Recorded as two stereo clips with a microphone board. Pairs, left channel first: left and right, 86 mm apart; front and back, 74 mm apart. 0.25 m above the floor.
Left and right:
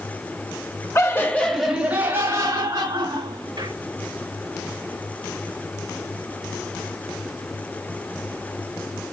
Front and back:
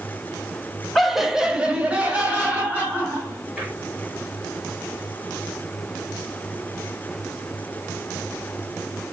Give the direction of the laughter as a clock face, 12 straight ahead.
9 o'clock.